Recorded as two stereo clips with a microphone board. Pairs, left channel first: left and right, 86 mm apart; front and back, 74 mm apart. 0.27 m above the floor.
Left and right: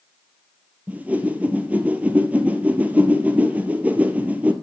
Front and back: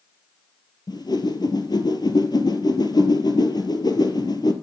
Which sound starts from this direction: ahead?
A whoosh, at 0.9 s.